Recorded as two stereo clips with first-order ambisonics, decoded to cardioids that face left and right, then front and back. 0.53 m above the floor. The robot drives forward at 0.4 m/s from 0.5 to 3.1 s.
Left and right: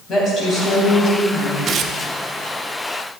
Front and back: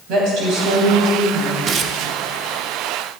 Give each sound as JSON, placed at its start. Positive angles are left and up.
{"t": 0.1, "sound": "a woman speaking", "azimuth_deg": 155, "distance_m": 3.5}
{"t": 1.7, "sound": "tearing paper", "azimuth_deg": -135, "distance_m": 0.6}